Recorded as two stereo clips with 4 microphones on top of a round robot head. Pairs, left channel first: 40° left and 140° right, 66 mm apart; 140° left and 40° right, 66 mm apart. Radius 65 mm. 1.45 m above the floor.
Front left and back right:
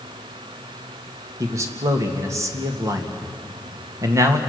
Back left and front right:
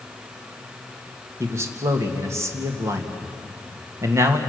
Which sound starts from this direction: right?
A man speaking, at 1.4 s.